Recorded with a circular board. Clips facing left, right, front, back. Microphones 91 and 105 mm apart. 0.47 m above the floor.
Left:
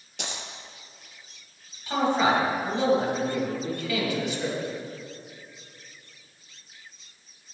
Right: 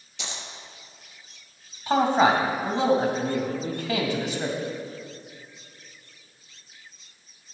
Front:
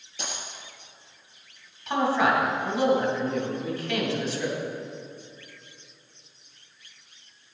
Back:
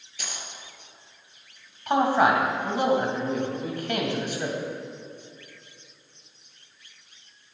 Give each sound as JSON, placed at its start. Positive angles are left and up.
{"t": 0.2, "sound": "a dropped coin", "azimuth_deg": 65, "distance_m": 1.0}
{"t": 1.9, "sound": "a man speaking", "azimuth_deg": -140, "distance_m": 2.0}